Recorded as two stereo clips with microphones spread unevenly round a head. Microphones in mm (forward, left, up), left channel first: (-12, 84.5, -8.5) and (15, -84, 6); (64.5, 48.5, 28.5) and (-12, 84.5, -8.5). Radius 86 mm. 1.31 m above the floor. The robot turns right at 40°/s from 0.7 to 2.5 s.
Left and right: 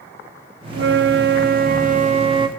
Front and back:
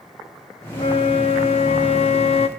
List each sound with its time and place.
0.7 s a flute: 90° right, 0.8 m; by 2.5 s 15° right, 0.8 m